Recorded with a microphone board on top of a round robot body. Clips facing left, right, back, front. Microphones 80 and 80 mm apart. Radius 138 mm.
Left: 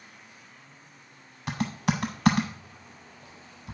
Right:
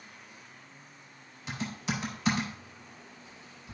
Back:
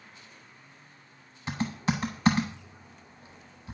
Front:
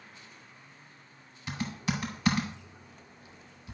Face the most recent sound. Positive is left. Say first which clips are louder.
# left 7 dB, back 4 dB
turn(degrees=120)